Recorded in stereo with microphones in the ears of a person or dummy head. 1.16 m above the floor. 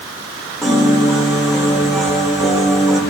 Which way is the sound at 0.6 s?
Centre (ahead or behind).